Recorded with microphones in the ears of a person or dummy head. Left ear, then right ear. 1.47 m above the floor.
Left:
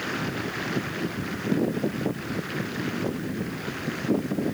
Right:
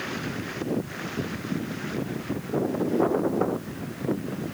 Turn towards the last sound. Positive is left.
No sound to turn to.